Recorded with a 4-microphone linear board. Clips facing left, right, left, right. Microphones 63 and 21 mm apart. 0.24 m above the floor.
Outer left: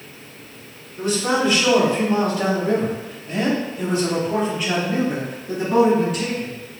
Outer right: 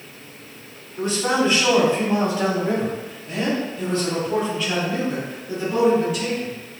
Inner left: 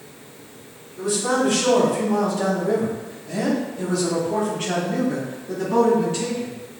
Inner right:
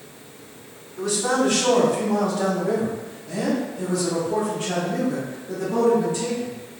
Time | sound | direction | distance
1.0 | a man speaking | 45° right (ahead or behind) | 2.0 m